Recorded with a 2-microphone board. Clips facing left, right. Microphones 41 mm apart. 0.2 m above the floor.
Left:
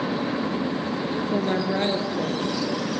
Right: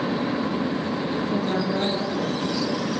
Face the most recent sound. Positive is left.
turn(degrees=30)  # may be behind; listen again after turning